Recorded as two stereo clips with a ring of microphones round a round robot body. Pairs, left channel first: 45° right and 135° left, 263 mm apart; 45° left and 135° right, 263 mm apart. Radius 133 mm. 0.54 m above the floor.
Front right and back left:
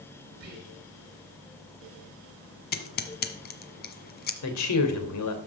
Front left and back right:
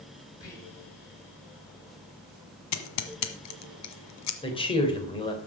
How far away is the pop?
I don't hear a pop.